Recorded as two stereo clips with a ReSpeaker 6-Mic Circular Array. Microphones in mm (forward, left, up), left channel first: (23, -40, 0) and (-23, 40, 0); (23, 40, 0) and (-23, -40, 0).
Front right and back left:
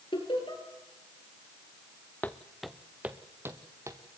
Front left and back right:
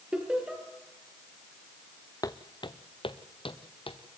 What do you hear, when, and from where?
0.1 s laughter: 40° right, 5.5 m
2.2 s footsteps: 10° left, 1.2 m; by 4.0 s 65° left, 2.5 m